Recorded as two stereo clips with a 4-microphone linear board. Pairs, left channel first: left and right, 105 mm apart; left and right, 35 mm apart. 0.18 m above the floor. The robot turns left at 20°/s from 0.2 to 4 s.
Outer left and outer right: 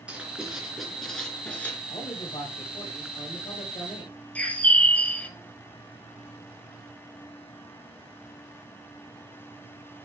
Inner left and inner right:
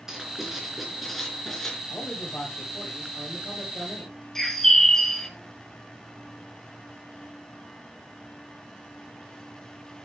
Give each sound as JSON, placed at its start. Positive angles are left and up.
{"t": 0.1, "sound": "writing", "azimuth_deg": -165, "distance_m": 3.0}
{"t": 1.9, "sound": "a man speaking", "azimuth_deg": 110, "distance_m": 4.5}
{"t": 4.3, "sound": "a bird", "side_deg": 10, "distance_m": 1.1}